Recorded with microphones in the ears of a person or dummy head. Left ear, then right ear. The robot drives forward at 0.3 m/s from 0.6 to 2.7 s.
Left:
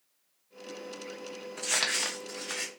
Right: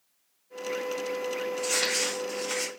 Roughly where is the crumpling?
Left.